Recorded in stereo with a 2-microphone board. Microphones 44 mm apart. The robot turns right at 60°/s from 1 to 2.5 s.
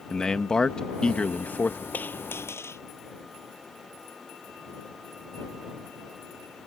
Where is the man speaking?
20° left; by 1.8 s 70° left.